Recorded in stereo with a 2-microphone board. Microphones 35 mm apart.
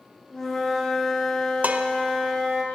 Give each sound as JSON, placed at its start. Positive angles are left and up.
{"t": 0.3, "sound": "a flute", "side_deg": 15, "distance_m": 1.7}
{"t": 1.6, "sound": "dishes clattering", "side_deg": -45, "distance_m": 0.6}